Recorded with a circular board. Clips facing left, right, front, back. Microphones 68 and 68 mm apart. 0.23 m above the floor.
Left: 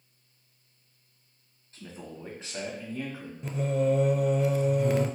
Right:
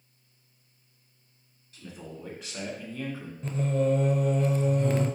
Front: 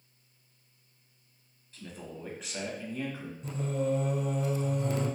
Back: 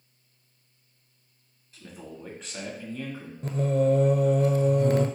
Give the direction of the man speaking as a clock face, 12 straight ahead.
9 o'clock.